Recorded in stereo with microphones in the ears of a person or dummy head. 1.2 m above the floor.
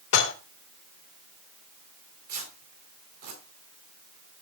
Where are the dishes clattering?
70° left (ahead or behind), 2.5 m.